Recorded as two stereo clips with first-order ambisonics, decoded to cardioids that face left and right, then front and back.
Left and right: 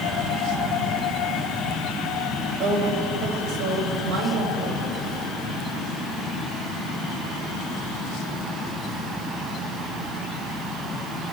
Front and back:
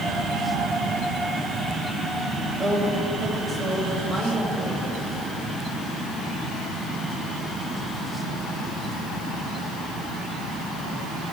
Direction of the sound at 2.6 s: 90° right.